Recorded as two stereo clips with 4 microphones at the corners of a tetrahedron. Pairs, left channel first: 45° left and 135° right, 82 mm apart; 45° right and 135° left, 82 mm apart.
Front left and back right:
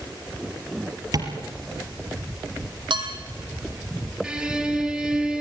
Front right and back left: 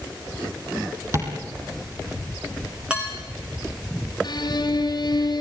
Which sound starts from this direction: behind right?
Dishes clattering, at 2.9 s.